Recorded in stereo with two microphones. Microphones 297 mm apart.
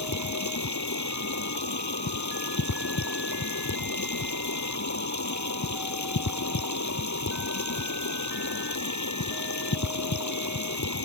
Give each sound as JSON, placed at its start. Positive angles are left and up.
{"t": 0.0, "sound": "running water", "side_deg": 70}